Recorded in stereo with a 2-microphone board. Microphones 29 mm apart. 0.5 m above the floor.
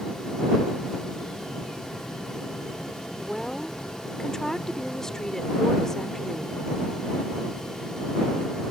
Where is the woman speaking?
20° left (ahead or behind).